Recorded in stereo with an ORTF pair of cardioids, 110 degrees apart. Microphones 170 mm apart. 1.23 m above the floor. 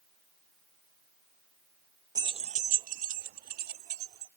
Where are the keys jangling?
20° right; by 4.3 s 70° right.